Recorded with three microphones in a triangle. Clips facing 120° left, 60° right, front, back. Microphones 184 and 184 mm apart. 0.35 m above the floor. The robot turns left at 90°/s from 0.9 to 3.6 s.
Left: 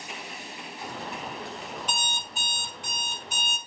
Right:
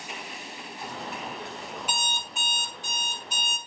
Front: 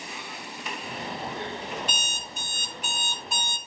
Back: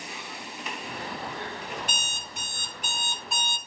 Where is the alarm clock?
135° right, 1.4 m; by 3.6 s 65° left, 1.4 m.